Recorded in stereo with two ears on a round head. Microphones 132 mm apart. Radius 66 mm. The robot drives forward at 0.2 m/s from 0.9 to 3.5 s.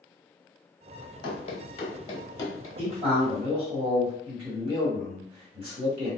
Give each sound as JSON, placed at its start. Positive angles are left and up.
{"t": 1.2, "sound": "running footsteps", "side_deg": 35, "distance_m": 1.0}
{"t": 2.8, "sound": "a man speaking", "side_deg": -40, "distance_m": 1.6}